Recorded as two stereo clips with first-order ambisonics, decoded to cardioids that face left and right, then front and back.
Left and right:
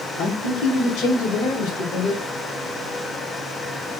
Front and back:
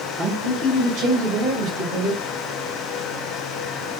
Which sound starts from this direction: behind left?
A man speaking, at 0.2 s.